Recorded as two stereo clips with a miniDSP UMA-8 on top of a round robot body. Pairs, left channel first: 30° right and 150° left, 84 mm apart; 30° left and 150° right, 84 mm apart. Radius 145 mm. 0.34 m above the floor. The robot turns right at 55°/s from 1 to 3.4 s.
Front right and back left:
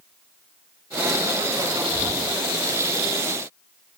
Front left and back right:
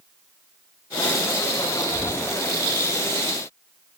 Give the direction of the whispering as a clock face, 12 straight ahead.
1 o'clock.